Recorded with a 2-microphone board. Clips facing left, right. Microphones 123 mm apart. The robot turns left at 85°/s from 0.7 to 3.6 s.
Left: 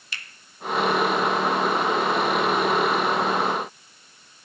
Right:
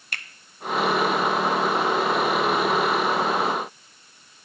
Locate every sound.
0.1 s a finger snap: 50° right (ahead or behind), 0.6 m